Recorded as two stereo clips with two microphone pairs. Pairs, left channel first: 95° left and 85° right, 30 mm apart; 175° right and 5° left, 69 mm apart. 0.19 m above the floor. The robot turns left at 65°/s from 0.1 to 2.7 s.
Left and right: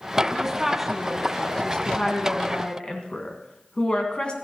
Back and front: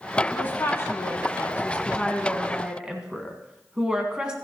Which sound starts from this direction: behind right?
A woman speaking, at 0.3 s.